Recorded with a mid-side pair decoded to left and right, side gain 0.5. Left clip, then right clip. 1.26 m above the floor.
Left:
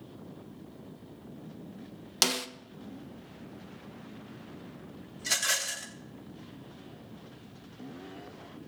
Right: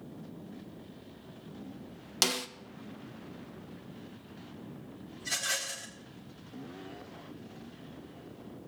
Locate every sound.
2.2 s a snare drum: 15° left, 0.9 m
5.2 s a rattle: 65° left, 2 m